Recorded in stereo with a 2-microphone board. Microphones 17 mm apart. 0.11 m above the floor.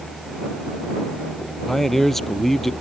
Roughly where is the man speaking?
Centre.